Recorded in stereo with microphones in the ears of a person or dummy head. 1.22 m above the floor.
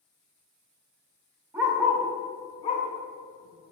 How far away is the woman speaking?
I don't hear a woman speaking.